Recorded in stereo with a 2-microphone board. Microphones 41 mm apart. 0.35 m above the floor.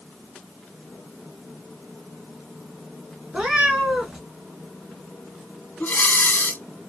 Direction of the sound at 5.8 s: 55° left (ahead or behind).